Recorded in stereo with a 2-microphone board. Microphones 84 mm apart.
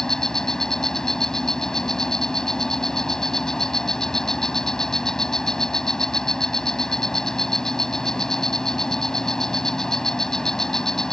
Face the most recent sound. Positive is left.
turn(degrees=5)  # may be behind; listen again after turning